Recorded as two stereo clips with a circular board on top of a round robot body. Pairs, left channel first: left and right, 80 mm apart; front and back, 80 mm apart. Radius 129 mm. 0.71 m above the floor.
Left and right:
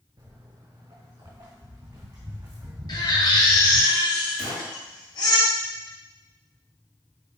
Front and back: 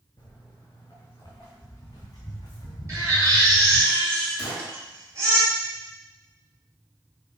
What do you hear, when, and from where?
0.2 s footsteps: 50° right, 3.5 m; by 3.9 s 20° right, 1.1 m
2.9 s a baby crying: 130° left, 3 m
4.4 s a gunshot: 95° right, 3.5 m